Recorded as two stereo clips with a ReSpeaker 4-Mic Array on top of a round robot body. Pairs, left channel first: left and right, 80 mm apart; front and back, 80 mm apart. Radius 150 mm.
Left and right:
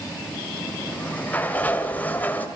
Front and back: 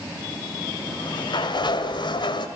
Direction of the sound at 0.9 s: 20° left.